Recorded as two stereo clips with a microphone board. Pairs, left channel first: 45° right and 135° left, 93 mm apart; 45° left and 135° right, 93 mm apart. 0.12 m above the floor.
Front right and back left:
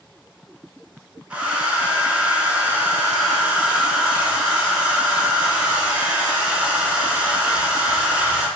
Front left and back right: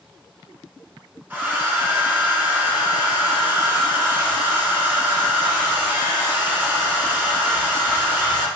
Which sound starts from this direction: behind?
A hair dryer, at 1.3 s.